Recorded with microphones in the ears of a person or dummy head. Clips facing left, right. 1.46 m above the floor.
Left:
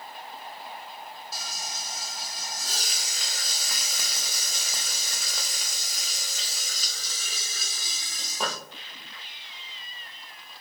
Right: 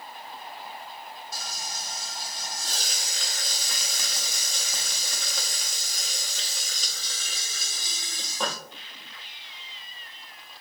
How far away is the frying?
About 0.7 m.